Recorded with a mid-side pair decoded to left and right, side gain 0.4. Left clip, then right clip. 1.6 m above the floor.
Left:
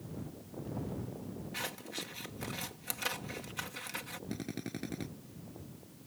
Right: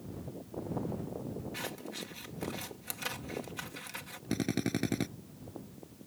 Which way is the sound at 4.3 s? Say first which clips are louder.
Right 12 dB; 60° right.